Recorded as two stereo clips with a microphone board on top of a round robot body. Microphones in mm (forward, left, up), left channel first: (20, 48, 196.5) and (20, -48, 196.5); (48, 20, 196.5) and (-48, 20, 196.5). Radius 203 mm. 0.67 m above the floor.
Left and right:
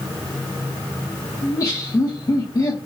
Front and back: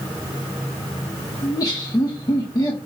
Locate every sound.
1.4 s laughter: 45° left, 1.6 m